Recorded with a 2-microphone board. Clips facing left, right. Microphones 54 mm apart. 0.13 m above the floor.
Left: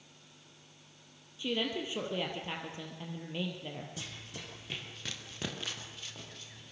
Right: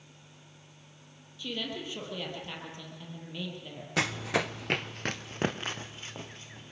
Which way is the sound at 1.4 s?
20° left (ahead or behind).